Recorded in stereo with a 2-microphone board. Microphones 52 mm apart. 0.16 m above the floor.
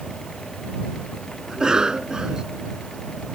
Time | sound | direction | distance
1.5 | a cough | 15° right (ahead or behind) | ?